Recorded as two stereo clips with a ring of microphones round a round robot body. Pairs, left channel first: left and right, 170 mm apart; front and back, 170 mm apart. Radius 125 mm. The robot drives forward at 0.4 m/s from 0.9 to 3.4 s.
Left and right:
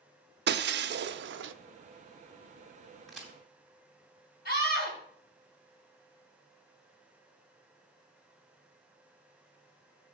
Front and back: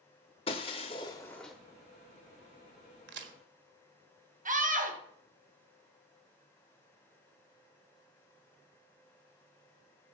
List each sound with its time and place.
0.5 s breaking glass: 70° right, 0.7 m; by 1.5 s 90° right, 0.6 m
3.1 s a crack: straight behind, 1.5 m
4.5 s a scream: 140° left, 4 m